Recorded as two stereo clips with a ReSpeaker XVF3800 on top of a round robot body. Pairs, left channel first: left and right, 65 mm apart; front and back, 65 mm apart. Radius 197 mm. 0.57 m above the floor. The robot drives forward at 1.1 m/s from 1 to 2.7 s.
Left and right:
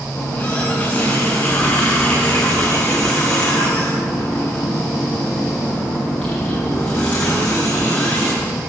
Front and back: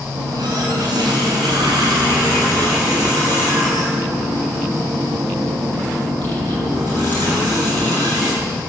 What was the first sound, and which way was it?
A running tap, 160° left.